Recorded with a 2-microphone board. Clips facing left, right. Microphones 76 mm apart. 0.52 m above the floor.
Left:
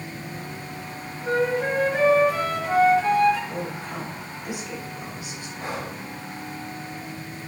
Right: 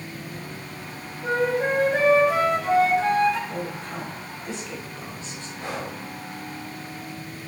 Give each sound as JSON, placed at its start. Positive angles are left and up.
{"t": 1.2, "sound": "a flute", "side_deg": -70, "distance_m": 3.5}
{"t": 3.5, "sound": "a woman speaking", "side_deg": 15, "distance_m": 2.5}
{"t": 5.6, "sound": "breathing", "side_deg": 25, "distance_m": 3.5}